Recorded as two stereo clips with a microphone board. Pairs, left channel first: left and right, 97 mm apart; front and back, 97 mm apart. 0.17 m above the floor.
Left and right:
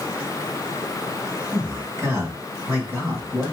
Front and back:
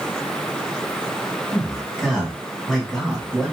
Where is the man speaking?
90° right, 1.2 m.